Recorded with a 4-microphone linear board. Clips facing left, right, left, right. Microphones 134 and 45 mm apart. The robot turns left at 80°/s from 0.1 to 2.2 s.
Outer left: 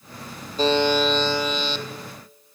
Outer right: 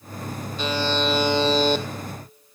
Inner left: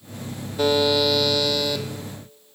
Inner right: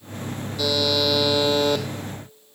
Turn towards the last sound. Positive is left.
turn(degrees=-90)